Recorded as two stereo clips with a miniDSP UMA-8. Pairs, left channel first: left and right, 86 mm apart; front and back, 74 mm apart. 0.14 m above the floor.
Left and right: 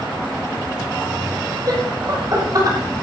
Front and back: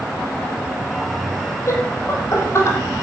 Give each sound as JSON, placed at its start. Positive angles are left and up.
{"t": 1.7, "sound": "laughter", "azimuth_deg": -50, "distance_m": 4.0}